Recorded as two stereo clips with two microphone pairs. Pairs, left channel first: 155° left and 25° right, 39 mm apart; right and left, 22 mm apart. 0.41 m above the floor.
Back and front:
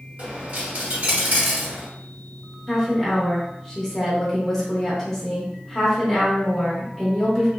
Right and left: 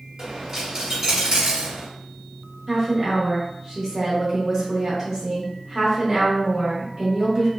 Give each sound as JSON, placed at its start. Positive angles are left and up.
{"t": 0.2, "sound": "a dropped coin", "azimuth_deg": 25, "distance_m": 1.0}
{"t": 2.7, "sound": "a woman speaking", "azimuth_deg": 90, "distance_m": 0.9}